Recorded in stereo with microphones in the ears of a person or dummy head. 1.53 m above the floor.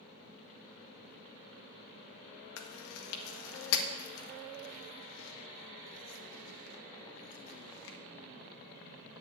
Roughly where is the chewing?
Left.